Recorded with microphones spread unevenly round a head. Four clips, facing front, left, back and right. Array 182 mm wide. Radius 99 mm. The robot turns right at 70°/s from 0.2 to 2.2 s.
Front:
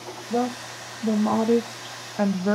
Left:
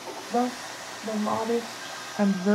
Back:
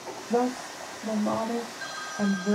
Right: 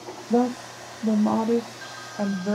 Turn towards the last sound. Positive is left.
turn(degrees=25)